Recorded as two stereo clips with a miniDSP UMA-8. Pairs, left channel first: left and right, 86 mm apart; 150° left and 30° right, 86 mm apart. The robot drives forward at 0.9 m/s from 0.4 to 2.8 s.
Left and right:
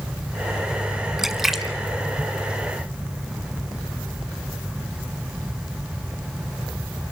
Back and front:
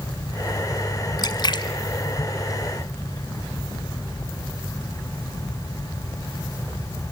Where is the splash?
175° right, 1.2 m; by 3.2 s straight behind, 2.5 m.